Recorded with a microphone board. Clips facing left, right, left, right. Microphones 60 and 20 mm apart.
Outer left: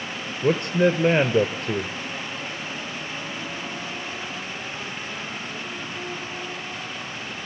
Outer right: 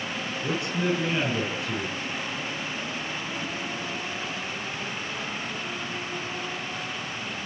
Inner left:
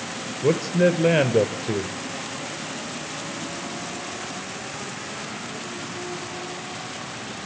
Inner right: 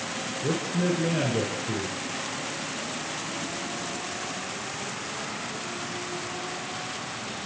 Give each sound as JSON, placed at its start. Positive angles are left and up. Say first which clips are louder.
{"t": 0.4, "sound": "a man speaking", "louder": "outer left 9 dB, inner left 8 dB", "side_deg": 50, "distance_m": 2.0}